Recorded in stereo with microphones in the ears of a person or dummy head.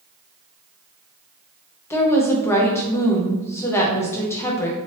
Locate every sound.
1.9 s a woman speaking: 15° left (ahead or behind), 0.6 m